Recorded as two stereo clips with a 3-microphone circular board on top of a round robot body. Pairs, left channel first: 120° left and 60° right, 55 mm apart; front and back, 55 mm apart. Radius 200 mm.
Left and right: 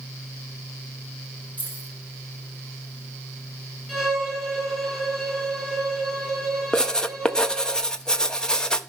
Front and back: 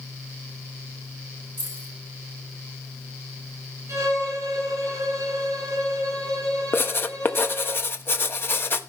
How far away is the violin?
About 7 m.